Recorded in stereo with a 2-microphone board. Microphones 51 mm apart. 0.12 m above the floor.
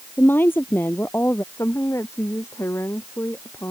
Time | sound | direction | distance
0.2 | a woman speaking | 40° left (ahead or behind) | ?
1.5 | a woman speaking | 60° left (ahead or behind) | ?